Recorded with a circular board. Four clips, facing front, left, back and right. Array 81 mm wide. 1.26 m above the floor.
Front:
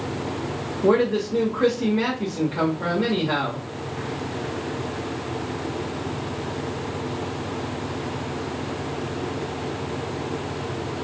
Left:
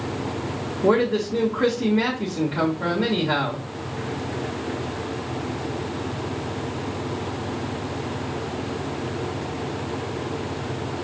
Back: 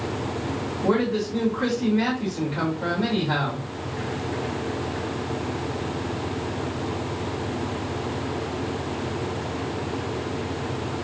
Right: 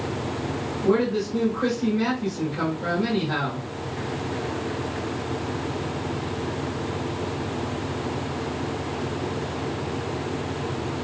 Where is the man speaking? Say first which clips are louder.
Left 2 dB, front 4 dB; 55° left, 1.8 m.